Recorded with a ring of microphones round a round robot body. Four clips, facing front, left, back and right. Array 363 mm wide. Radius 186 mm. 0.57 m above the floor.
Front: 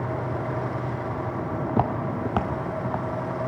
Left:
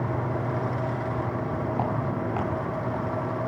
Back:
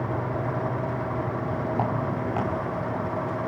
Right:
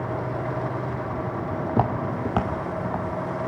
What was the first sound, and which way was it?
Footsteps, 50° right.